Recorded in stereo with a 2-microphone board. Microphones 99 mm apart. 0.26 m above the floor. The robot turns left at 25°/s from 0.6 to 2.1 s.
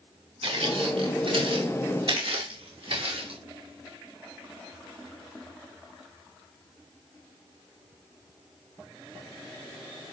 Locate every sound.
0.4 s footsteps: 75° right (ahead or behind), 5.5 m; by 3.4 s 65° right (ahead or behind), 8 m